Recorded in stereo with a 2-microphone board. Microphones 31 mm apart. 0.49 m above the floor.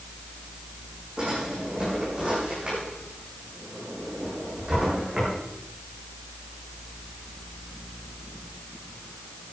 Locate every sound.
1.2 s a drawer: 30° right (ahead or behind), 8.5 m